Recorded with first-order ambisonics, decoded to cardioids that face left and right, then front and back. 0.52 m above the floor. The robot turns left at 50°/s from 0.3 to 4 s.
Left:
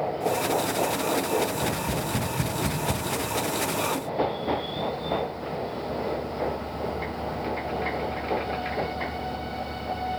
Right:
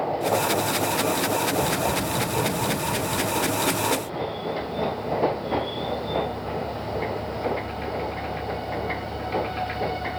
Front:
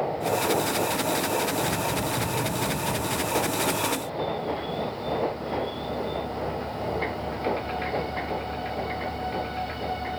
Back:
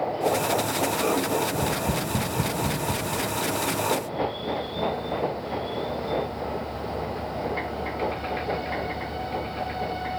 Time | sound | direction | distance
1.5 | tapping | 175° right | 2.5 m